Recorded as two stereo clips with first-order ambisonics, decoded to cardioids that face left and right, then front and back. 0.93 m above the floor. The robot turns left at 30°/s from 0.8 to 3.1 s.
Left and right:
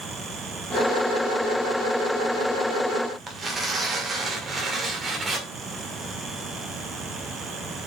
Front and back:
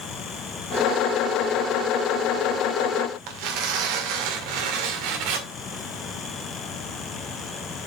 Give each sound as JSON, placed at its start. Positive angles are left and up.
{"t": 3.3, "sound": "tearing paper", "azimuth_deg": -165, "distance_m": 1.7}